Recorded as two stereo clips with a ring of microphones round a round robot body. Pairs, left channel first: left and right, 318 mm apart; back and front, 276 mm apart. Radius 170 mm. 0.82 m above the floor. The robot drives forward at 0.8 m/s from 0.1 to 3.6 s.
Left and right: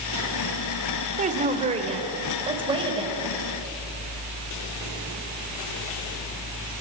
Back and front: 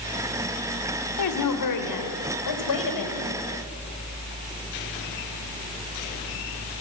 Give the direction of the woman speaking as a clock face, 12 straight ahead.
5 o'clock.